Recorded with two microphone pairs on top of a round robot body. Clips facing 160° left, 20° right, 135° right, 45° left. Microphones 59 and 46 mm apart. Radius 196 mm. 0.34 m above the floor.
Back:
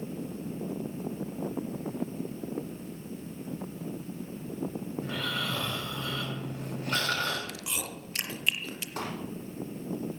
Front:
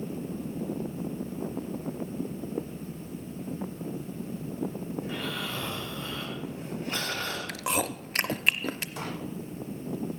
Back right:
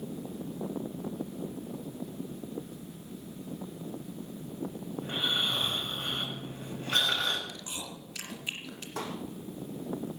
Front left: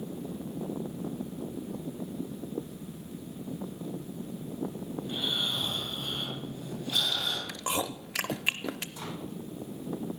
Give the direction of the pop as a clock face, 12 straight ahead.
5 o'clock.